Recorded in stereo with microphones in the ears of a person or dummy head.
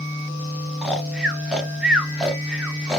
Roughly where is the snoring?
Centre.